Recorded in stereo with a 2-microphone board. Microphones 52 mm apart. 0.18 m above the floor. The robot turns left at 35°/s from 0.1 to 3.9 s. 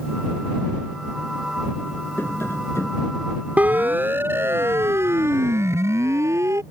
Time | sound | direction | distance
2.2 | tapping | 125° left | ?
3.6 | a siren | 30° right (ahead or behind) | ?